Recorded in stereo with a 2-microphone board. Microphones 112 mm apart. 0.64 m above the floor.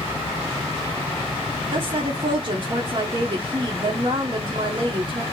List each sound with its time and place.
1.7 s a woman speaking: 45° right (ahead or behind), 1.0 m